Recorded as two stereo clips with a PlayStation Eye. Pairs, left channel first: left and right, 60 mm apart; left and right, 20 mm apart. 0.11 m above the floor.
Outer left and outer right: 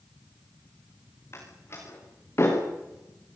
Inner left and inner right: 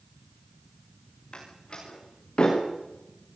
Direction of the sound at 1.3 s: 45° left (ahead or behind).